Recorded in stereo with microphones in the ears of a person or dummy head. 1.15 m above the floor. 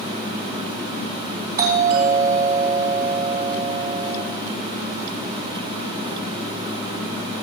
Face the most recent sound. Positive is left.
turn(degrees=-50)  # may be behind; listen again after turning